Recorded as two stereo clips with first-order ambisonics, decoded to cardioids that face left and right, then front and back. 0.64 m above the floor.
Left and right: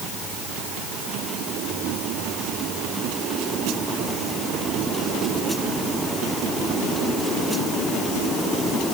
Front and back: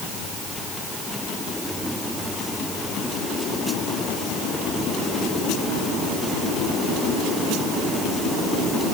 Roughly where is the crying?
I don't hear crying.